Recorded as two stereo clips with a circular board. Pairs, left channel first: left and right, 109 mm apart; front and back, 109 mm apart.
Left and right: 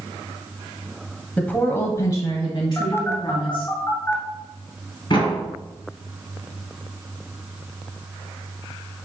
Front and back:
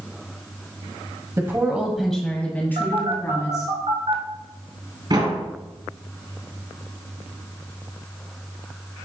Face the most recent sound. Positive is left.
turn(degrees=135)